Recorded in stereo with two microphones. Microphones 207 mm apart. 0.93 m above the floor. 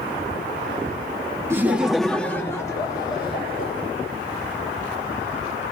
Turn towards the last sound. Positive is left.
turn(degrees=25)  # may be behind; listen again after turning